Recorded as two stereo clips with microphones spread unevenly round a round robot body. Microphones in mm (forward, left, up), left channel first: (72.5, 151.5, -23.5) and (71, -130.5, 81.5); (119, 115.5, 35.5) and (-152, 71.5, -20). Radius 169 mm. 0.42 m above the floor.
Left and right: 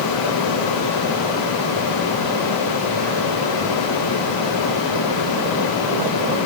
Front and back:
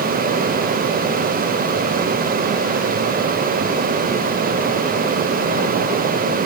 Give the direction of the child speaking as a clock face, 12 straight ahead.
No child speaking in this recording.